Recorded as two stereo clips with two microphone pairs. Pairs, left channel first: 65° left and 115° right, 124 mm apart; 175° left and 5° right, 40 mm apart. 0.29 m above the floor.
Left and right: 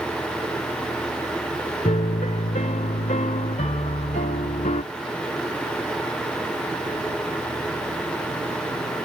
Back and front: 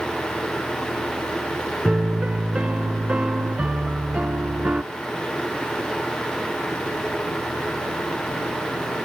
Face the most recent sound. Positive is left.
turn(degrees=55)